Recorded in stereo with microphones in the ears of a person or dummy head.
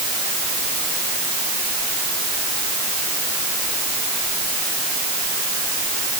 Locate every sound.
Only background noise.